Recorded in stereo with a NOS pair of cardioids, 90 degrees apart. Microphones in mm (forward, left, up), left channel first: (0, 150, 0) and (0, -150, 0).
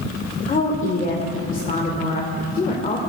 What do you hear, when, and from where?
0.5 s a woman speaking: 25° left, 1.5 m